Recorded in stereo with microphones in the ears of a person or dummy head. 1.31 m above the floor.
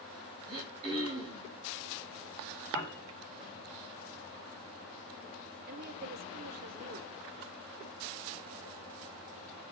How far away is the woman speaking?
About 1.1 m.